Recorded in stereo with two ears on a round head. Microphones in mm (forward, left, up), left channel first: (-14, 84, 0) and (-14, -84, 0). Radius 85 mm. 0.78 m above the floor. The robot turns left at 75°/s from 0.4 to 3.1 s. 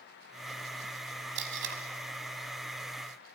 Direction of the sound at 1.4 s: 55° right (ahead or behind).